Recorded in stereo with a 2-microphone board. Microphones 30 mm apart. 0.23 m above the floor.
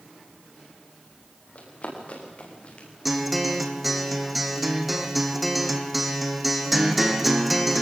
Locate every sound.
1.6 s running footsteps: 50° left (ahead or behind), 8.5 m; by 2.9 s 40° left (ahead or behind), 8 m
3.0 s a guitar: centre (ahead or behind), 2.5 m